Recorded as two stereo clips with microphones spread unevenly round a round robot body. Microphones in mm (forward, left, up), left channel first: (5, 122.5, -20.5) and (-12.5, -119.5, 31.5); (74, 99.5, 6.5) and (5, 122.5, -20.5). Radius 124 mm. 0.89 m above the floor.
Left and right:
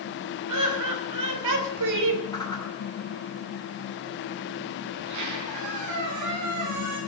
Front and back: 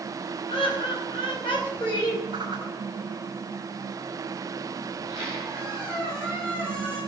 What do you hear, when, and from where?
0.5 s laughter: 75° right, 5.5 m; by 2.2 s 85° right, 4 m
2.3 s a whoosh: 160° left, 4.5 m
4.9 s a squeak: 105° right, 8.5 m